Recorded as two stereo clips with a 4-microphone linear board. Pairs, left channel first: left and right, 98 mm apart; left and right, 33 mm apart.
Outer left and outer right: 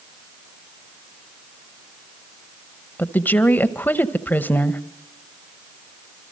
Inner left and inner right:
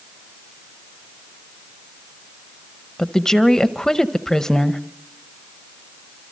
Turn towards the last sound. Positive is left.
turn(degrees=20)  # may be behind; listen again after turning